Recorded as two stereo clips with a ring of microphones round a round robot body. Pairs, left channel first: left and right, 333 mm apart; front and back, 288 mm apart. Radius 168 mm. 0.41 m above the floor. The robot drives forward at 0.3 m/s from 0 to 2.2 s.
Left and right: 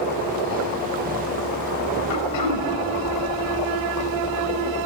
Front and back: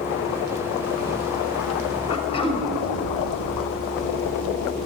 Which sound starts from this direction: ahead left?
Throat clearing, at 2.1 s.